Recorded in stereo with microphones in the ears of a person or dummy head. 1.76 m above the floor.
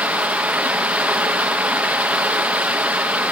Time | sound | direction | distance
0.0 | running water | 10° right (ahead or behind) | 0.8 m